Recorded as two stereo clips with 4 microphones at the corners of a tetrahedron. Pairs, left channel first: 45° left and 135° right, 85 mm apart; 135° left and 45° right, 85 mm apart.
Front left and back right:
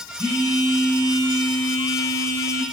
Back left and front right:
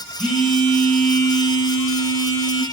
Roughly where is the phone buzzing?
Right.